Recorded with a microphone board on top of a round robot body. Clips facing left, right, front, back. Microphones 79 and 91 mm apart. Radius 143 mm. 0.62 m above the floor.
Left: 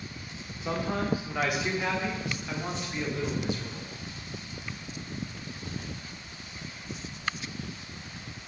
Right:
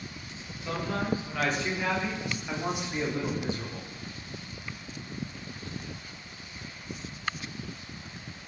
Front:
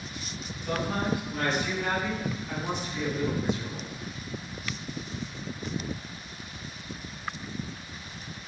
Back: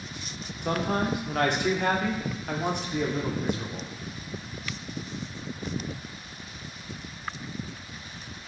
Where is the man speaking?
155° left, 3 m; by 3.9 s 140° right, 2.5 m.